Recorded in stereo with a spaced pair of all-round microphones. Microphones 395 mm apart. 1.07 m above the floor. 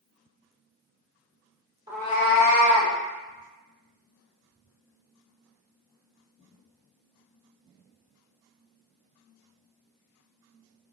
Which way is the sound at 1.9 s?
10° right (ahead or behind).